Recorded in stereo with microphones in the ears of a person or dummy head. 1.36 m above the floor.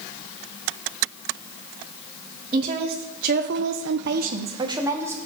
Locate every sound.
2.5 s a woman speaking: 30° right (ahead or behind), 1.6 m; by 5.2 s 15° right (ahead or behind), 1.6 m